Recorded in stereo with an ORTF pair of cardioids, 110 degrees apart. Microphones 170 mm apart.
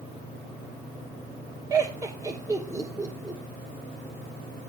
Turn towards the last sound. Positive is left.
turn(degrees=-20)